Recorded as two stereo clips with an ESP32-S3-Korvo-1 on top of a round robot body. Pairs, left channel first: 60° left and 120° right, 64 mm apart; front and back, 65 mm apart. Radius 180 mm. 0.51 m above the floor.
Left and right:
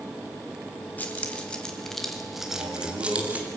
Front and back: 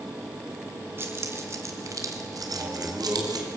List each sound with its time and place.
1.0 s keys jangling: 125° left, 2.5 m; by 3.5 s 175° left, 3 m
2.5 s a man speaking: 130° right, 5.5 m